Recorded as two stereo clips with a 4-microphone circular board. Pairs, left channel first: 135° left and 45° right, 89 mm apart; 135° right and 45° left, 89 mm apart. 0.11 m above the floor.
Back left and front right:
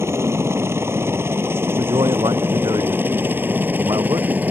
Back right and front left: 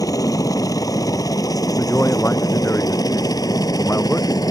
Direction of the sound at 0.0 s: 100° right.